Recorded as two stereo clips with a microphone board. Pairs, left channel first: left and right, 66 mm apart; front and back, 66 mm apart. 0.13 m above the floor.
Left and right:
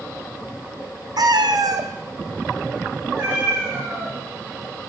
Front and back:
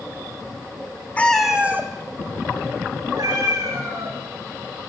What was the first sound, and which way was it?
A cat meowing, 70° right.